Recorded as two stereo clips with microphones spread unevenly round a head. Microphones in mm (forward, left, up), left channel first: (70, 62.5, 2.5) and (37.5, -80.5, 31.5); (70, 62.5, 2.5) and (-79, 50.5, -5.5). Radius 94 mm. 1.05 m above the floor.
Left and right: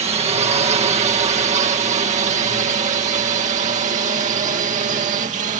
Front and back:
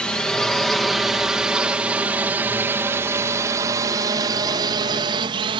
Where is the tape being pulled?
No tape being pulled in this recording.